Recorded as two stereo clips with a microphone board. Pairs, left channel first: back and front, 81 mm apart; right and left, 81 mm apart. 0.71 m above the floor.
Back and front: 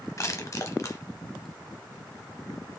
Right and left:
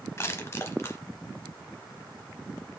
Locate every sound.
0.2 s crushing: 140° right, 0.8 m